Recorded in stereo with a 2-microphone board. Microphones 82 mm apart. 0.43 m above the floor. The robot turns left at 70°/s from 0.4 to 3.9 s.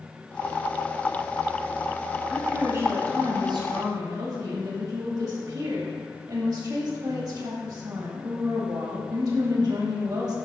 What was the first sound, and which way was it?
A woman speaking, 5° right.